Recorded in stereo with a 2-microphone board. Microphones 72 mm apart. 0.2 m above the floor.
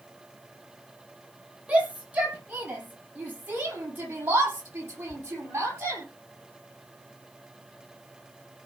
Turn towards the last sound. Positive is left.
turn(degrees=-35)  # may be behind; listen again after turning